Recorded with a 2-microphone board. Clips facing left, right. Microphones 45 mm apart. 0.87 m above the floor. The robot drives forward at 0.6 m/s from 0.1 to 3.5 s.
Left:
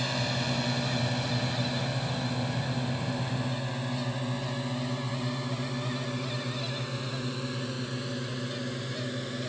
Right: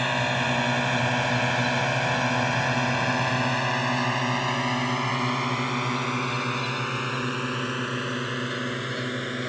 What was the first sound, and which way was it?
A drone, 40° right (ahead or behind).